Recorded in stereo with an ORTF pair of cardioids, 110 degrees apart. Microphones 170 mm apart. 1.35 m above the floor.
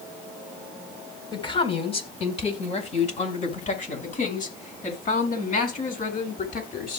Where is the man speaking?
30° left, 4 m; by 7.0 s 60° left, 8.5 m.